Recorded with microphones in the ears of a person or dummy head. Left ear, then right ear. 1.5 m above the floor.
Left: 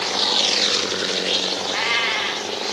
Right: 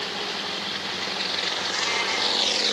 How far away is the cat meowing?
About 2 m.